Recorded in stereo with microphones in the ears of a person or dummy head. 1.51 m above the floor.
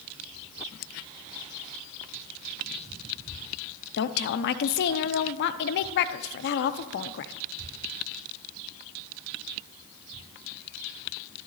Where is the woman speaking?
60° left (ahead or behind), 0.7 m.